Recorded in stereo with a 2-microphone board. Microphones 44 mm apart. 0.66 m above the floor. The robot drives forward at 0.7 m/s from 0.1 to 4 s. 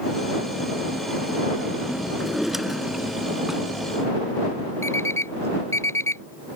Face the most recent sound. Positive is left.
turn(degrees=80)